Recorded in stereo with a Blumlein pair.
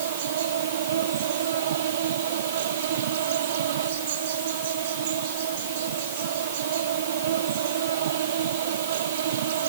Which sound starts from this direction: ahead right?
An insect, at 0.0 s.